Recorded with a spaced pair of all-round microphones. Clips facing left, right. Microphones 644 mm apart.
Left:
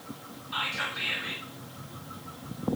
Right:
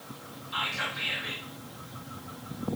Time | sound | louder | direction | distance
0.5 | whispering | right 1 dB | 60° left (ahead or behind) | 2.5 m